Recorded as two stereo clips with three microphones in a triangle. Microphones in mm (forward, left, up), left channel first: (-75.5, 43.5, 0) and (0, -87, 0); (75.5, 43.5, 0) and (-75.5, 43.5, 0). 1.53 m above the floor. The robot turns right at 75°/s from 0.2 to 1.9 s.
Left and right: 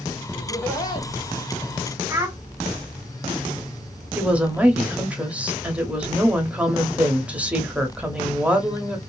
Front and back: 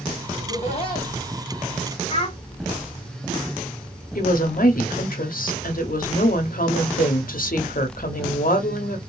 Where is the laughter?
20° left, 1.8 m; by 1.1 s 75° left, 1.8 m.